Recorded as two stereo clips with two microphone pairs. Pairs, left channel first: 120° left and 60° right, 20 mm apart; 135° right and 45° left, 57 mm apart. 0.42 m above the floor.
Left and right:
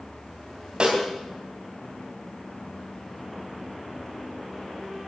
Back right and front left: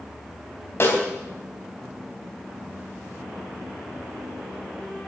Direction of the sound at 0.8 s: 95° right.